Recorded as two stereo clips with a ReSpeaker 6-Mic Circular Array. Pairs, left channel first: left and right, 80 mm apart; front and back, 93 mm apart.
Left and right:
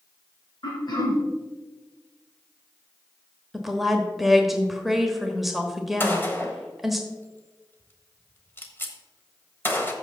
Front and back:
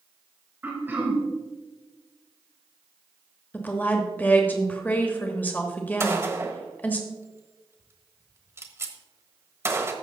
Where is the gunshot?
135° left, 1.3 m.